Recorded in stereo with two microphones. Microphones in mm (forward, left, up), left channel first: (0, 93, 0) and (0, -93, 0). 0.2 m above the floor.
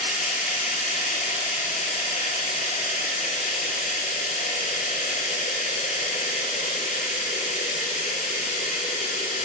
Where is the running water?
45° left (ahead or behind), 1.1 m.